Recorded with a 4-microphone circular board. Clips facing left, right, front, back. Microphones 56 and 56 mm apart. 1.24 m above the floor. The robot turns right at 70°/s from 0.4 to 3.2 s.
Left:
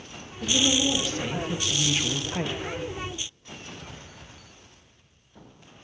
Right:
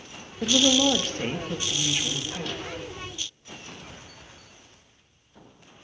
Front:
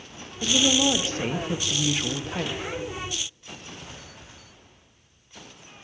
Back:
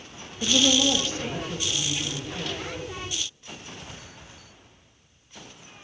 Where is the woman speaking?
90° right, 0.6 m; by 2.7 s 70° left, 0.6 m.